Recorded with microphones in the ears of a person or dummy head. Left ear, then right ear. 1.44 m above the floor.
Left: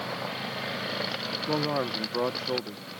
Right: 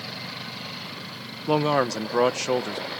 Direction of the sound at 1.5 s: 75° right (ahead or behind).